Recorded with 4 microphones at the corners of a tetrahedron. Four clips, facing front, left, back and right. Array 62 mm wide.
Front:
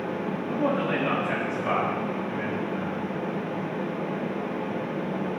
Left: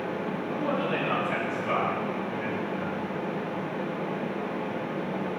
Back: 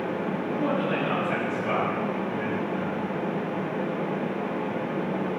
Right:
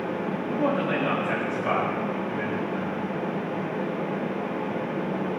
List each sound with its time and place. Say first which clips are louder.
0.5 s a man speaking: right 4 dB, front 1 dB; 55° right, 6.5 m; by 3.1 s 70° right, 6.5 m